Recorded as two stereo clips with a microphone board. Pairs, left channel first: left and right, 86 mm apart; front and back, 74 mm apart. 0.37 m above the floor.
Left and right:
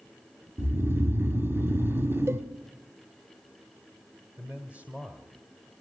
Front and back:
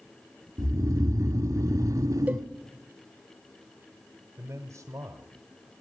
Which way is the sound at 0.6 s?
150° right.